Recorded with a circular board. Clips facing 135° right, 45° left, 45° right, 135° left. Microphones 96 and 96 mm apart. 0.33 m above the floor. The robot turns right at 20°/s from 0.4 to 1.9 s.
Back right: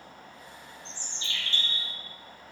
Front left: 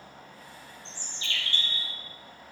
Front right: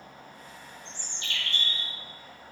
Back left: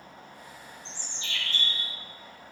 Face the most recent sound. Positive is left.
turn(degrees=-60)